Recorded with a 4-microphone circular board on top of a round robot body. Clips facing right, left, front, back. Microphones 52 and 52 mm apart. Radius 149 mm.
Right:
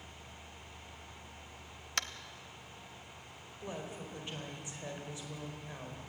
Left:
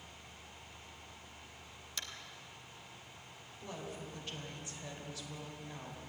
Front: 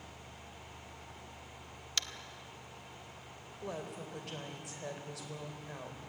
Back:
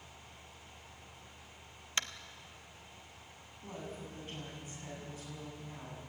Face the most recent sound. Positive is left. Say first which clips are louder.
# right 2 dB, front 3 dB
turn(degrees=-20)